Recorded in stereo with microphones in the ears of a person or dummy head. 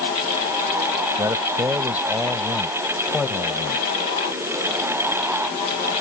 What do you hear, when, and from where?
1.2 s a man speaking: 10° right (ahead or behind); by 3.9 s 10° left (ahead or behind)